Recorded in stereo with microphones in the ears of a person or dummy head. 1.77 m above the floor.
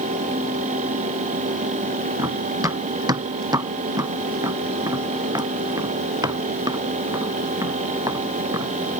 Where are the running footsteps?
25° right (ahead or behind).